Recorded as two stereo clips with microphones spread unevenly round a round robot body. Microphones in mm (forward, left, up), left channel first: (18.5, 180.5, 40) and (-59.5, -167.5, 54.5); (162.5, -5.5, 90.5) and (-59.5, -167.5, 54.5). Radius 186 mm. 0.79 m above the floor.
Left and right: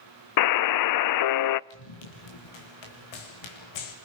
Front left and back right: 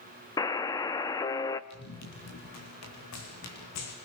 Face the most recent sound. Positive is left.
turn(degrees=85)